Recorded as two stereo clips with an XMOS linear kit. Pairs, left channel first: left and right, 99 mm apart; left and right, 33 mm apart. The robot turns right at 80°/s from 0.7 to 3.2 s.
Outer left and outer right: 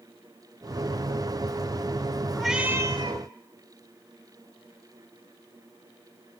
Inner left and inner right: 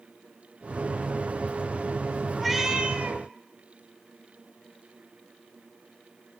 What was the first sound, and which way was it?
A cat meowing, 175° left.